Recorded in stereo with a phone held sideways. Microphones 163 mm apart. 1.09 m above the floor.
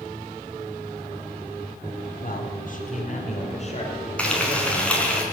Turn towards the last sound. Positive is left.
turn(degrees=5)  # may be behind; listen again after turning